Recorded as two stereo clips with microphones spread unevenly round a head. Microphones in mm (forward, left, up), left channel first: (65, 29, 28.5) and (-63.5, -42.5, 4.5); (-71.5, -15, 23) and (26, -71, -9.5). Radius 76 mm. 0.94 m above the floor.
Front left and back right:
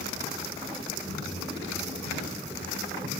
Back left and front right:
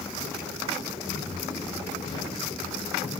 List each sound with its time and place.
1.1 s footsteps: 155° right, 8.5 m; by 3.1 s 175° right, 9.5 m